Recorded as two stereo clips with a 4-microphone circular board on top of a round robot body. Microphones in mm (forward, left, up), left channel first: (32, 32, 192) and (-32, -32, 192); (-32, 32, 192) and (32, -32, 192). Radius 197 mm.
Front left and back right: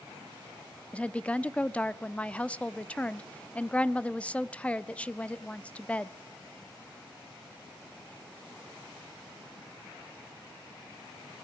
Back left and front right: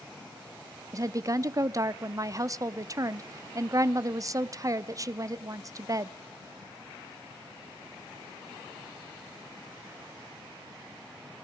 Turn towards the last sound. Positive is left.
turn(degrees=-25)